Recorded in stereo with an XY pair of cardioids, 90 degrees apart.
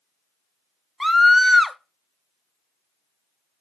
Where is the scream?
5° left, 0.9 m.